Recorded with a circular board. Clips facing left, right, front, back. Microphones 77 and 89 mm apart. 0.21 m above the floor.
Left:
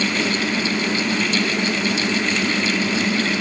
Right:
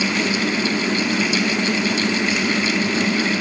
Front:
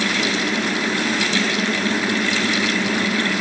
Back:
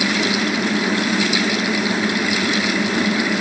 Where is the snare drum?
No snare drum in this recording.